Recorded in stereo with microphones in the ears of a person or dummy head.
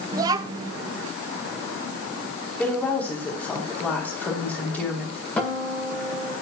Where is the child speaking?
25° right (ahead or behind), 0.6 m.